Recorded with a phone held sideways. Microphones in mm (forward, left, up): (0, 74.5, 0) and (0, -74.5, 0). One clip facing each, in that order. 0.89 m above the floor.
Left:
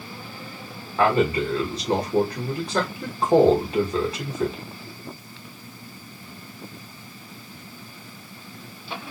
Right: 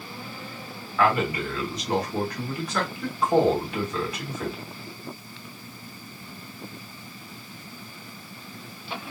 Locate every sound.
1.0 s a man speaking: 30° left (ahead or behind), 1.2 m